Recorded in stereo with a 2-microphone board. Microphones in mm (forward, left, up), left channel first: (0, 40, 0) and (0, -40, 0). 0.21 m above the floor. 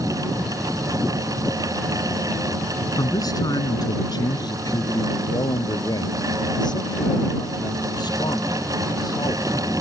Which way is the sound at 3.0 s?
50° left (ahead or behind).